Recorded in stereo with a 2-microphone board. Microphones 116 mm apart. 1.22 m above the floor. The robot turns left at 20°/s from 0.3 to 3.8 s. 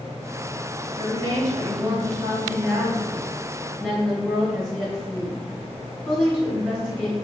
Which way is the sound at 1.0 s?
130° right.